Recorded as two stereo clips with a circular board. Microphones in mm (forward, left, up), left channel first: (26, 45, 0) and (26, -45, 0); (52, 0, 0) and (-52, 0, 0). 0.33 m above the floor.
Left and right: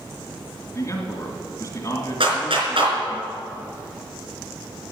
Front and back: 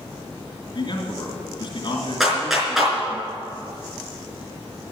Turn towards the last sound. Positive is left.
turn(degrees=-90)